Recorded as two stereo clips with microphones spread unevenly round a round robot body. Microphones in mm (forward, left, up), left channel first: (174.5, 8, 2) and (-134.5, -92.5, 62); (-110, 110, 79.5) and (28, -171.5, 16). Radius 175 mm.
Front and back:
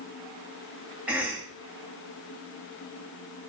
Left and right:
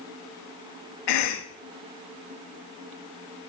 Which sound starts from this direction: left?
A cough, at 1.1 s.